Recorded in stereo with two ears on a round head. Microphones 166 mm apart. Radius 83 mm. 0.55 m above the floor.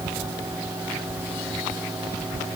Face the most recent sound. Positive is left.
No sound to turn to.